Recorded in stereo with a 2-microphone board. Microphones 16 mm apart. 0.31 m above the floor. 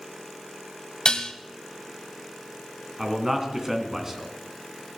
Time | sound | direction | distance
1.1 | dishes clattering | 55° left (ahead or behind) | 1.1 m
3.0 | a man speaking | 25° right (ahead or behind) | 3 m